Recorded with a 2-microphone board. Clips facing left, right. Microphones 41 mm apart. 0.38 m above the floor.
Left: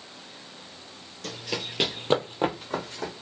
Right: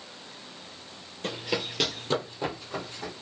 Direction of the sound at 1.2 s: 30° right (ahead or behind).